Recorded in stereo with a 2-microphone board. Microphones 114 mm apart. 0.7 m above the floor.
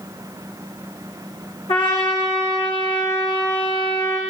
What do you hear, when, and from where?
1.7 s a trumpet: 55° left (ahead or behind), 9.5 m